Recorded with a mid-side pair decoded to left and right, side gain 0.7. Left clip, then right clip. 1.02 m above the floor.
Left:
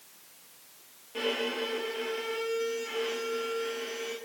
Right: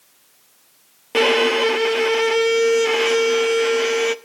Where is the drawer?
No drawer in this recording.